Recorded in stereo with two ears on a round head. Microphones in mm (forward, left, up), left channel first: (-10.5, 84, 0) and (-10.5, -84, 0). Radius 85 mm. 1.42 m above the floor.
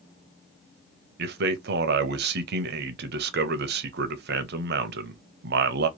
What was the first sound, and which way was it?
A man speaking, 60° right (ahead or behind).